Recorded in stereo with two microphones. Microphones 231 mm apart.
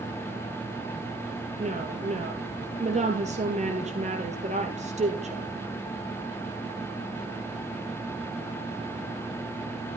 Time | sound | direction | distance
1.6 | a woman speaking | 30° right (ahead or behind) | 3 m